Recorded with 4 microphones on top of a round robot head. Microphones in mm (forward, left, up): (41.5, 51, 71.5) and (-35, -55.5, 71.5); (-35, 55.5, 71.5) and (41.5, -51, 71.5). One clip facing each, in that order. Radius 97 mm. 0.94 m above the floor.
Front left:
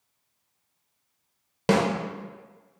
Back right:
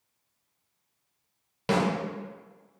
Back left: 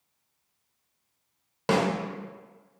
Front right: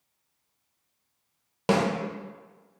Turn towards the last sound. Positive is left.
turn(degrees=20)